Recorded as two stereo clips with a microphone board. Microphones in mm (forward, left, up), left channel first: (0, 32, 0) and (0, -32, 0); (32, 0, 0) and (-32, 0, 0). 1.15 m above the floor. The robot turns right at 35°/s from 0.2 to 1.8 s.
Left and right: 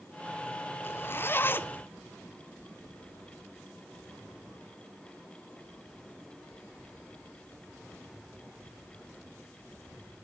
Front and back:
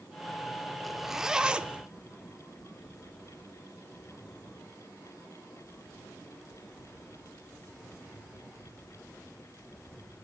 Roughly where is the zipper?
Left.